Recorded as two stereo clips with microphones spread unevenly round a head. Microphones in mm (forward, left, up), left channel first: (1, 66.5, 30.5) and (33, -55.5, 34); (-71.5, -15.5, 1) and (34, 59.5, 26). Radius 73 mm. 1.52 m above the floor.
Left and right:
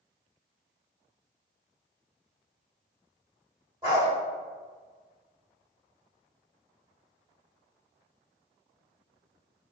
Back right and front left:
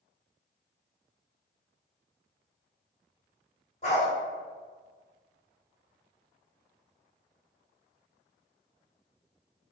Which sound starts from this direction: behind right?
A dog barking, at 3.8 s.